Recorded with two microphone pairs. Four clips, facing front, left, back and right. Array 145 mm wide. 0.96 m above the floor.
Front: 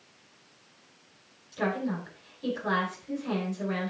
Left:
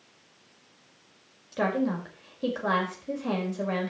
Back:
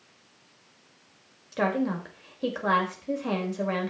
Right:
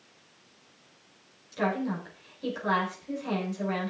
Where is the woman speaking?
145° left, 5 m.